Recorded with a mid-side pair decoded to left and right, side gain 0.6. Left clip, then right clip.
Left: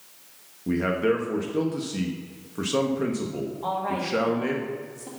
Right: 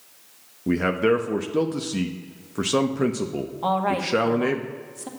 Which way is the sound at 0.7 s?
30° right.